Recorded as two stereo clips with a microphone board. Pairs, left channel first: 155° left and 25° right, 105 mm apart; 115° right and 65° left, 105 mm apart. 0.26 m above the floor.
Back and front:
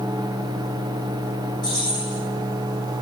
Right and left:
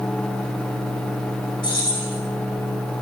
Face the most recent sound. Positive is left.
turn(degrees=-160)